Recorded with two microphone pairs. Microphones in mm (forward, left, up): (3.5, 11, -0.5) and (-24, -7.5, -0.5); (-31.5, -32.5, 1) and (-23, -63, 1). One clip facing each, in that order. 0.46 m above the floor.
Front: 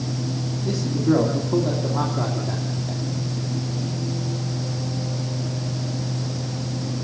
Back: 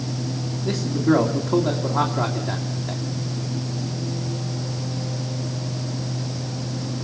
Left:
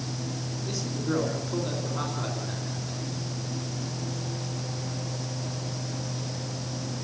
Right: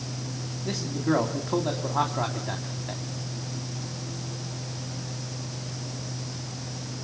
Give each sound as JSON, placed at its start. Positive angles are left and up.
{"t": 0.7, "sound": "a man speaking", "azimuth_deg": -105, "distance_m": 3.0}